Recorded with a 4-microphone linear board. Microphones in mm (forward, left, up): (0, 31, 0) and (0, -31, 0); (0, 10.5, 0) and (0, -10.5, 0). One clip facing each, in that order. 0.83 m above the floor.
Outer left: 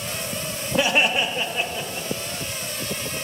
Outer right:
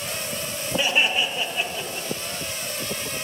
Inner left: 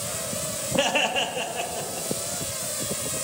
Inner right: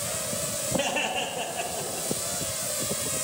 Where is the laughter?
65° left (ahead or behind), 1.4 m; by 2.1 s 10° left (ahead or behind), 1.9 m.